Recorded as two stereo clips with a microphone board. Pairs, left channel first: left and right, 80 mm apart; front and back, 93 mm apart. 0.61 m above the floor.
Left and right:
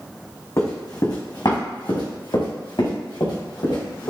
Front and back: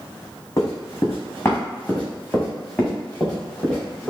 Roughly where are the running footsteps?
Ahead left.